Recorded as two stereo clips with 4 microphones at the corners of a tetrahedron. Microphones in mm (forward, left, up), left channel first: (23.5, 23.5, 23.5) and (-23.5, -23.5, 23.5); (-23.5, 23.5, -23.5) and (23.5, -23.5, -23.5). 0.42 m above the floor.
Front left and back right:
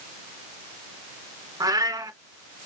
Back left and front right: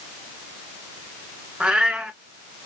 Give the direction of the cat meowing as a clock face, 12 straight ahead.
4 o'clock.